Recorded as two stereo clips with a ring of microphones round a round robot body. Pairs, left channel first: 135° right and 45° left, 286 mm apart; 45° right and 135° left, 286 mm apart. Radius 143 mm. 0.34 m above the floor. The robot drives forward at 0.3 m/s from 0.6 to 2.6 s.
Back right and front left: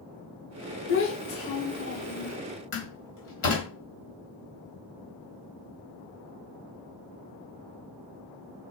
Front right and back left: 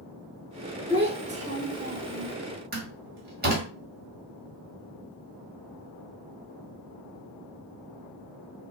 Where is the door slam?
170° right, 1.1 m.